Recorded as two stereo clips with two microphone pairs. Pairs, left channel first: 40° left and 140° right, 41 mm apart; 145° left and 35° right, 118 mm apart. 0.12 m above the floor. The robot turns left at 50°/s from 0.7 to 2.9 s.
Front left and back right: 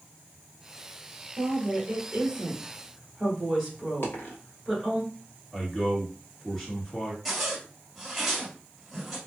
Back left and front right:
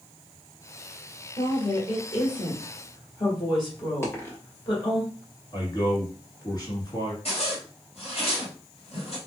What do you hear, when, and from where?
1.4 s a woman speaking: 145° right, 1.9 m; by 5.0 s 135° left, 1.9 m
4.0 s a dropped coin: 75° left, 1.3 m
5.5 s a man speaking: 120° left, 1.5 m
7.2 s a zipper: 130° left, 1.8 m